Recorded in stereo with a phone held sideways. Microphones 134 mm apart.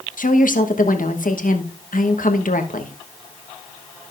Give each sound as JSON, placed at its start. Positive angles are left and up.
{"t": 0.2, "sound": "a woman speaking", "side_deg": 85, "distance_m": 1.1}